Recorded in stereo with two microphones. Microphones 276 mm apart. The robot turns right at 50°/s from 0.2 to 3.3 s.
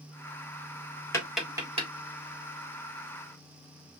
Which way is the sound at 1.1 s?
10° left (ahead or behind).